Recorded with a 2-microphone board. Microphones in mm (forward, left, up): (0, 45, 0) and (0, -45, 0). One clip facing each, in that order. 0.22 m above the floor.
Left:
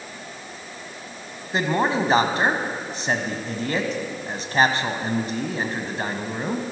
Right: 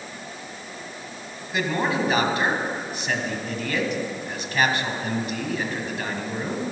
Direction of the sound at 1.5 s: 35° left (ahead or behind).